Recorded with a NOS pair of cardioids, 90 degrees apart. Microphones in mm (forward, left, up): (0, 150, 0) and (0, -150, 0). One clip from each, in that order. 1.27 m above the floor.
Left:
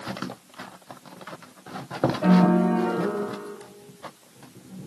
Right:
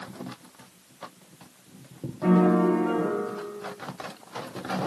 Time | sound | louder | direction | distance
2.2 | a piano | right 2 dB | 35° left | 2.5 m